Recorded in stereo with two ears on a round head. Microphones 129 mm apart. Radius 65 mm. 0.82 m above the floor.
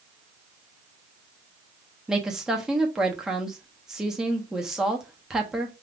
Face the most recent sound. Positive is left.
turn(degrees=-5)  # may be behind; listen again after turning